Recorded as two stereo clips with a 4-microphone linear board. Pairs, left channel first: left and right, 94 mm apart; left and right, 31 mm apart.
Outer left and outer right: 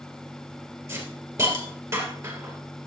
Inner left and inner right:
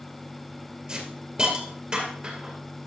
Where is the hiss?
30° right (ahead or behind), 2.5 m.